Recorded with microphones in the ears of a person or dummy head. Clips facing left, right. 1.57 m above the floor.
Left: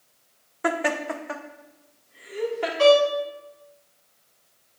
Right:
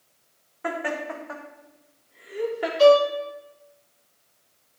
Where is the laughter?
60° left (ahead or behind), 1.0 m; by 2.7 s 20° right (ahead or behind), 0.9 m.